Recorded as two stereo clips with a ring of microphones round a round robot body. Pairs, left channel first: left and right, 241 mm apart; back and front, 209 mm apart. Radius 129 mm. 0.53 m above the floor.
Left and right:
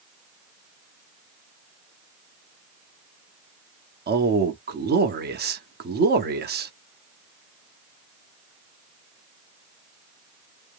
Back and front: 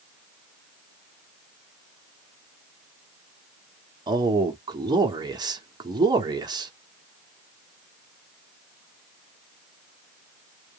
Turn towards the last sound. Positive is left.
turn(degrees=-65)